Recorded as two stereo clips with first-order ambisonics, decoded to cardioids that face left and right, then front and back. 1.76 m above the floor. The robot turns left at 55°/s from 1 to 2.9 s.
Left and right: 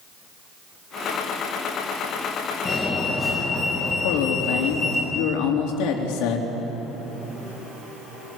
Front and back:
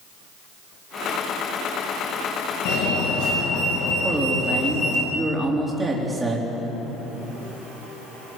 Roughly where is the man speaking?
Left.